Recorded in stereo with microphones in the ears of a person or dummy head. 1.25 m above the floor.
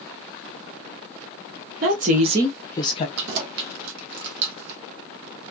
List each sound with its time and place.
1.8 s a woman speaking: 50° right (ahead or behind), 1.0 m; by 3.1 s 30° left (ahead or behind), 0.9 m
3.2 s keys jangling: 65° right (ahead or behind), 0.7 m